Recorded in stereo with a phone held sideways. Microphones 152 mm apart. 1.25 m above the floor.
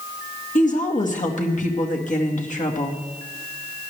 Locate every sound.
0.6 s a woman speaking: 55° left (ahead or behind), 1.9 m